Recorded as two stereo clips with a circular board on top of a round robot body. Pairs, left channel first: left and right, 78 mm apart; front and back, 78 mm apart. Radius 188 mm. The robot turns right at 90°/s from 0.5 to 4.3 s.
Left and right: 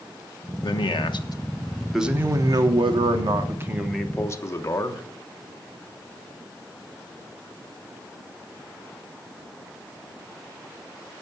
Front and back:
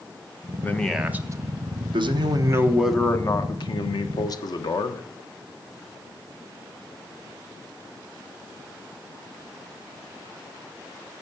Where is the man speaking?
65° left, 1.4 m; by 5.0 s 35° left, 1.4 m.